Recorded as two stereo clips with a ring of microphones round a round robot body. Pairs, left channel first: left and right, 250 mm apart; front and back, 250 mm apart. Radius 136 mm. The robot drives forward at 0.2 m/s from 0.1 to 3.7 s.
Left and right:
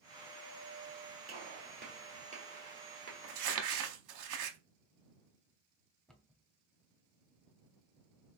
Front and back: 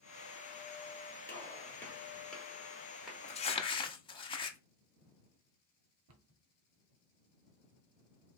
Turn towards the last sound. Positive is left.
turn(degrees=175)